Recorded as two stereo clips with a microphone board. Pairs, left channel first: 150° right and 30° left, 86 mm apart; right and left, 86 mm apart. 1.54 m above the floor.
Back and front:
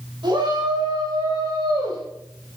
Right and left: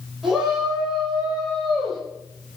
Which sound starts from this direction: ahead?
A shout, at 0.2 s.